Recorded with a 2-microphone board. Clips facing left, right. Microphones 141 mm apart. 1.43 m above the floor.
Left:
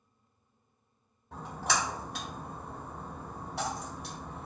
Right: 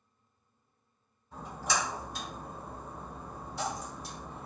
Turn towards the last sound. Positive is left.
turn(degrees=65)  # may be behind; listen again after turning